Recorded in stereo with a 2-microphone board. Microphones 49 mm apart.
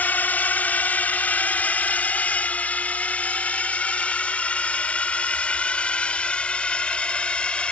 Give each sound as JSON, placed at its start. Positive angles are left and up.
{"t": 0.0, "sound": "a drone", "side_deg": 35}